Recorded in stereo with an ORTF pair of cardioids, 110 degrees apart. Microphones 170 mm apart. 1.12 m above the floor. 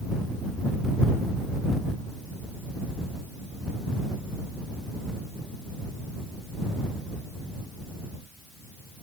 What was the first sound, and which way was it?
Only background noise.